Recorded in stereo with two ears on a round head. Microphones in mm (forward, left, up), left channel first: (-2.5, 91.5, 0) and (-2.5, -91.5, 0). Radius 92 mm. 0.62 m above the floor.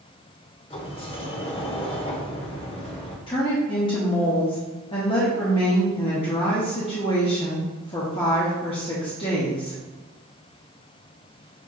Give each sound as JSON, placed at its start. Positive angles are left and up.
{"t": 0.7, "sound": "a sliding door", "side_deg": 30, "distance_m": 0.8}
{"t": 3.3, "sound": "a woman speaking", "side_deg": 25, "distance_m": 1.0}